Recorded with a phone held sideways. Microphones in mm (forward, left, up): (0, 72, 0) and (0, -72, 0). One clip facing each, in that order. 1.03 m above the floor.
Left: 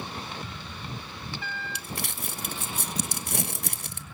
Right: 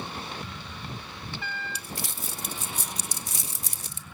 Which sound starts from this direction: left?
Crumpling, at 1.8 s.